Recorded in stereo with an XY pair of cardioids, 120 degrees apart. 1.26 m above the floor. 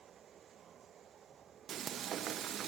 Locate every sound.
1.7 s frying: 55° right, 0.7 m